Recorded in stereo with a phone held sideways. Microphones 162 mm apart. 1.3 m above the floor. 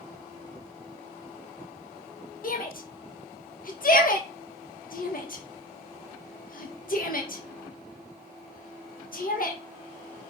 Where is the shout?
60° left (ahead or behind), 1.9 m.